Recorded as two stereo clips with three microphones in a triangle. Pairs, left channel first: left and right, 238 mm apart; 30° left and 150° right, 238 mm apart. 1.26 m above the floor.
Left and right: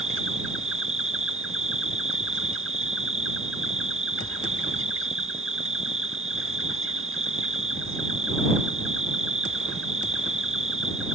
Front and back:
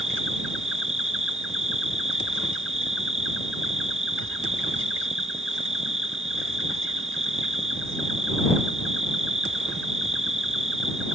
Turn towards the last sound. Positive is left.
turn(degrees=-120)